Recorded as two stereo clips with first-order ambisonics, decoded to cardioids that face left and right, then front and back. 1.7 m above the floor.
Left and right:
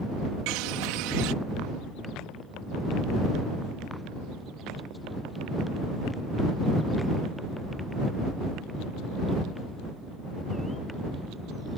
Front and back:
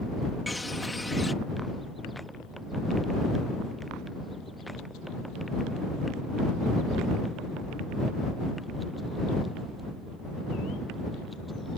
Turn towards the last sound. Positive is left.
turn(degrees=-85)